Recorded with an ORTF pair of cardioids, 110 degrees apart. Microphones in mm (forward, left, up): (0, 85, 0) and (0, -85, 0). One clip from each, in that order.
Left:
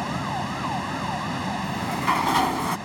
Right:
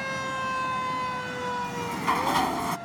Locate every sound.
0.0 s a fan: 60° left
1.6 s a sliding door: 20° left